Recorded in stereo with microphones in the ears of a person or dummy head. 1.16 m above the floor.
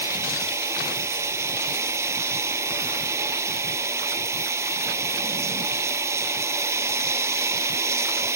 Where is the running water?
15° right (ahead or behind).